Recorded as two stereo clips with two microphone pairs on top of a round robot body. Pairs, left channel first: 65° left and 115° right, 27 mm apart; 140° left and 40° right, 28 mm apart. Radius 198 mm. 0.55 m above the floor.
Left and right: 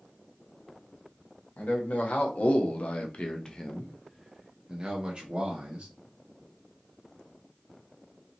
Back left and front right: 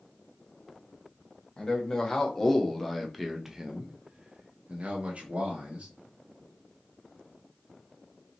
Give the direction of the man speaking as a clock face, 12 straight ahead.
9 o'clock.